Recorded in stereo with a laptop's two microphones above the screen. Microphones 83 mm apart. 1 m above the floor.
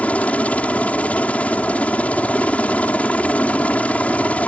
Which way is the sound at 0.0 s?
15° left (ahead or behind).